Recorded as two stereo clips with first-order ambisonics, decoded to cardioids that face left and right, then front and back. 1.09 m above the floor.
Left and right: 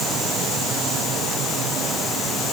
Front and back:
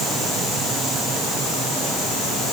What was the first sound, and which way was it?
Only background noise.